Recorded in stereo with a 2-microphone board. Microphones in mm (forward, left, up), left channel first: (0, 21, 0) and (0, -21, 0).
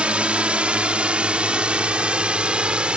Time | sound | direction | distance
0.0 | a drone | 30° right (ahead or behind) | ?